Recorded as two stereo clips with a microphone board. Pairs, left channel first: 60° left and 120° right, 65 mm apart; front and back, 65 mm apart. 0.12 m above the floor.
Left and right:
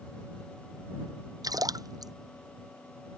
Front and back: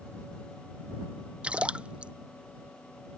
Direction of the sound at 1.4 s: 105° right.